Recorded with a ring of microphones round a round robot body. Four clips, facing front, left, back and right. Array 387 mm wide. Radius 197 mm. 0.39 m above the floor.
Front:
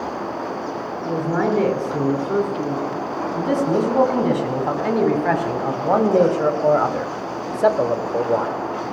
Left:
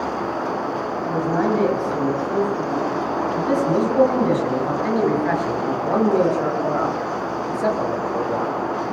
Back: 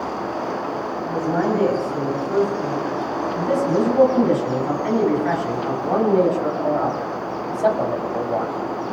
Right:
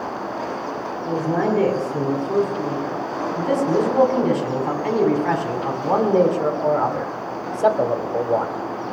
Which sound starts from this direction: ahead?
A man speaking, at 1.1 s.